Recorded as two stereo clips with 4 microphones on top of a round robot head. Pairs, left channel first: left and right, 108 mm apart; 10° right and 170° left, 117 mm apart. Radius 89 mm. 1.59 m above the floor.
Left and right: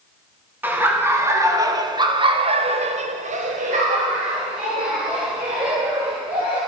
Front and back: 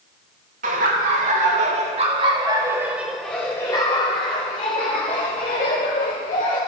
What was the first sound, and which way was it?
Laughter, 165° right.